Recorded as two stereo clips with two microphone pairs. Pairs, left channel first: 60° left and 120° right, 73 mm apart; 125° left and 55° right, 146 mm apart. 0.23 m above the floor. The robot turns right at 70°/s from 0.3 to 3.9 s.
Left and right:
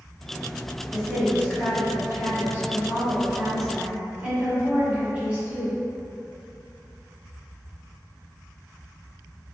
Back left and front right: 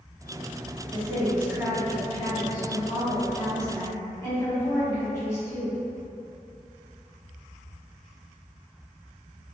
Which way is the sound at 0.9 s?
25° right.